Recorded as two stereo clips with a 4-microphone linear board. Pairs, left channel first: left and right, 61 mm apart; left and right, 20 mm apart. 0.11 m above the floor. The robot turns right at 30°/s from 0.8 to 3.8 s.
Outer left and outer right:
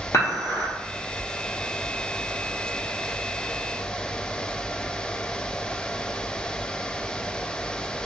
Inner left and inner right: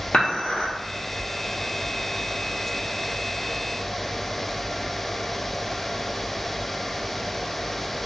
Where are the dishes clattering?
60° left (ahead or behind), 1.5 m.